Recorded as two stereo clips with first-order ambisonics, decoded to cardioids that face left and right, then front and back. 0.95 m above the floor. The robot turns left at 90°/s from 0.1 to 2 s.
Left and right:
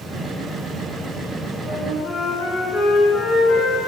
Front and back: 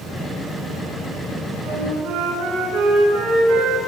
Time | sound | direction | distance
1.6 | a flute | straight behind | 8 m